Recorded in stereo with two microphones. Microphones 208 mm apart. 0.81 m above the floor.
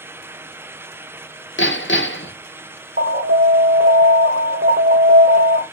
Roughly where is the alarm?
Right.